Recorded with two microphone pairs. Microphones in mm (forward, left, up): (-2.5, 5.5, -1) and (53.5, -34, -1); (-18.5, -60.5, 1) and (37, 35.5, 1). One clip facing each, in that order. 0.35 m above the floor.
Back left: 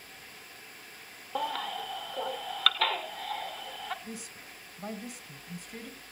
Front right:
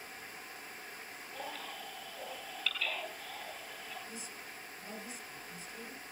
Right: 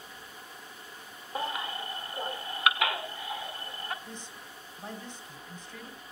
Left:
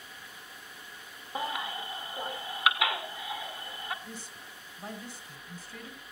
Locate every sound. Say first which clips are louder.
1.4 s a baby crying: back left 12 dB, even; 145° left, 1.7 m
4.0 s a woman speaking: back left 3 dB, right 1 dB; 140° left, 2.5 m